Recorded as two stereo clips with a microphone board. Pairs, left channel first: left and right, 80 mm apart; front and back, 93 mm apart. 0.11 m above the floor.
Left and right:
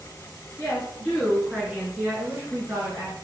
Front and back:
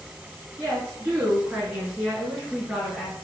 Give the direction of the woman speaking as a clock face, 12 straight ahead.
8 o'clock.